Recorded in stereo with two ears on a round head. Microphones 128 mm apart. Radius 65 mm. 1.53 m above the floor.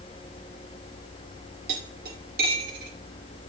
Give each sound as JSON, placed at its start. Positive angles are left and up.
{"t": 1.7, "sound": "cutlery clinking", "side_deg": -70, "distance_m": 2.5}